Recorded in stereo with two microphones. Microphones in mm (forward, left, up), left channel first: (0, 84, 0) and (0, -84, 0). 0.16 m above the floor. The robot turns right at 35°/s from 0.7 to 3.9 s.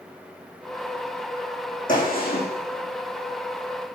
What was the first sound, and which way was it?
A gunshot, 55° left (ahead or behind).